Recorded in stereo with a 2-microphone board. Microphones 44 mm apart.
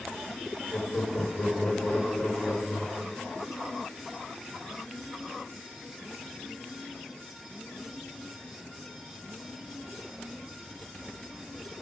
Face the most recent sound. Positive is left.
turn(degrees=30)  # may be behind; listen again after turning